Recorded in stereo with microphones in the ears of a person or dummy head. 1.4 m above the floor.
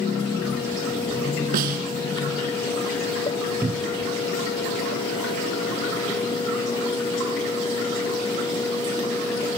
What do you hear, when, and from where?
1.5 s a snare drum: 50° right (ahead or behind), 3.5 m
3.6 s a cupboard door: 10° right (ahead or behind), 0.5 m